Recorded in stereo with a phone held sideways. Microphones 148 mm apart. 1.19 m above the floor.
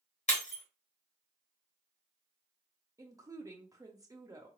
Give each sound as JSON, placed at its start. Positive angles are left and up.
{"t": 0.3, "sound": "breaking glass", "side_deg": 50, "distance_m": 1.1}
{"t": 3.0, "sound": "a woman speaking", "side_deg": -25, "distance_m": 0.6}